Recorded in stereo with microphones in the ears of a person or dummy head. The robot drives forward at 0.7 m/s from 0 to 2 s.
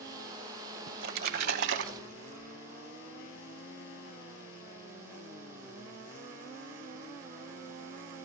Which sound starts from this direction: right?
A splash, at 0.9 s.